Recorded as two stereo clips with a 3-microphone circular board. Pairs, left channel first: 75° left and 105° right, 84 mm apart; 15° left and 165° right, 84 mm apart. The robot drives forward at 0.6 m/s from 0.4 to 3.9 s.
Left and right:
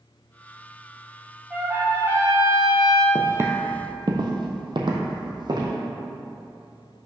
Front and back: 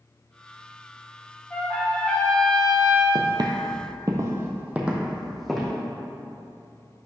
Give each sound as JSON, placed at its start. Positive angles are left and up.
{"t": 1.5, "sound": "a trumpet", "azimuth_deg": -40, "distance_m": 1.5}
{"t": 3.1, "sound": "footsteps", "azimuth_deg": -165, "distance_m": 0.8}